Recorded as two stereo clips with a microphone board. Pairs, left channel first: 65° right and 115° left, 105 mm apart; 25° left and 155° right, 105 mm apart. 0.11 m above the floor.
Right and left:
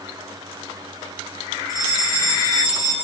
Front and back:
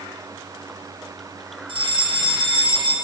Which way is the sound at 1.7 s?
125° right.